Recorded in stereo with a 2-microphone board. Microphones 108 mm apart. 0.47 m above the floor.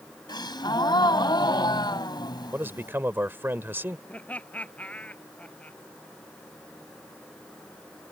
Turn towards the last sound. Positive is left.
turn(degrees=15)  # may be behind; listen again after turning